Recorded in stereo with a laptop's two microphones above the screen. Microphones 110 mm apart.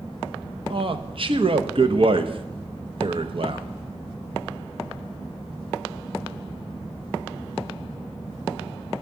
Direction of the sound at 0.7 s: 55° right (ahead or behind).